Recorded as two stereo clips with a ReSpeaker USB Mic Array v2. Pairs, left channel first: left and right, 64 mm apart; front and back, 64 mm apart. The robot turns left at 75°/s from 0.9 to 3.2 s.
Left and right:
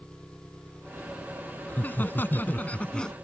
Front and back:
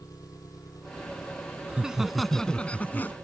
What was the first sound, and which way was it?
An engine running, 15° left.